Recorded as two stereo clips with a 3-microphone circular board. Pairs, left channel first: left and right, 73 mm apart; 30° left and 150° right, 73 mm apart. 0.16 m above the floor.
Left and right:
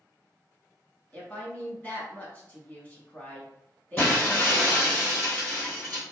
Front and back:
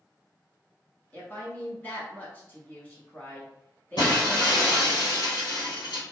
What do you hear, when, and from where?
1.1 s a woman speaking: 60° left, 1.1 m
4.0 s breaking glass: 30° left, 1.8 m